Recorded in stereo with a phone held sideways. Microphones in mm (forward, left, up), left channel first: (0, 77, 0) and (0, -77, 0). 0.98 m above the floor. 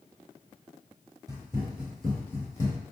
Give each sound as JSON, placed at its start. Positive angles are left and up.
{"t": 1.3, "sound": "running footsteps", "side_deg": -25, "distance_m": 1.3}